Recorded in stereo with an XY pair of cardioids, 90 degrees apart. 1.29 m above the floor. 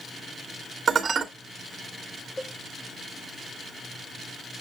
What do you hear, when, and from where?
0.9 s dishes clattering: 50° right, 1.7 m
2.4 s a cowbell: 20° left, 1.3 m